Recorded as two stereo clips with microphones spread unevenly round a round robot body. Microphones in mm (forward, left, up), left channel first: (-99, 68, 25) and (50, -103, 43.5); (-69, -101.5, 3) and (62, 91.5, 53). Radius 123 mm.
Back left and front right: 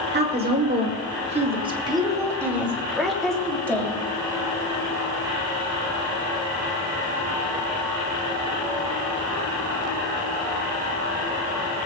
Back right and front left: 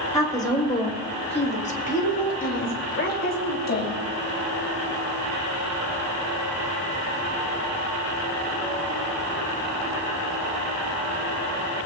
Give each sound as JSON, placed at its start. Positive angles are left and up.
{"t": 0.1, "sound": "a woman speaking", "azimuth_deg": -65, "distance_m": 1.6}